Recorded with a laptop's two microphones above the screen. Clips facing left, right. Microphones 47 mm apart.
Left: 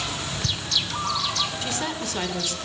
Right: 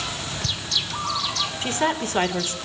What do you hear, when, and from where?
1.6 s a woman speaking: 35° right (ahead or behind), 3 m